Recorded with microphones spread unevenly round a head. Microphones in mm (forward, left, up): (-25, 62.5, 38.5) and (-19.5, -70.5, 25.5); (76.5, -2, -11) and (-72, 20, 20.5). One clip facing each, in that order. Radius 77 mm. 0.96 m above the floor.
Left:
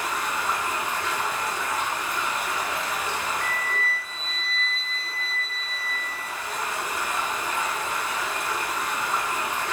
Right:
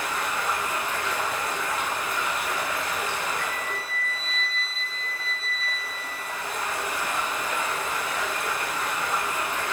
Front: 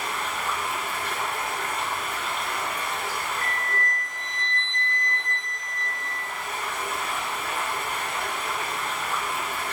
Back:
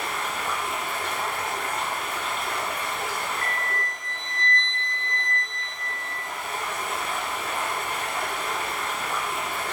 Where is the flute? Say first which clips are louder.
Left 2 dB, even; 20° right, 1.1 m.